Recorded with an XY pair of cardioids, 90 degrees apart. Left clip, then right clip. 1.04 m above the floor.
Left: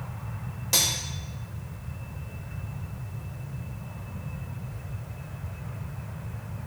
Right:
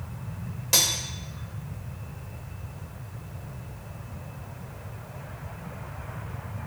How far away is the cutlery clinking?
About 0.9 m.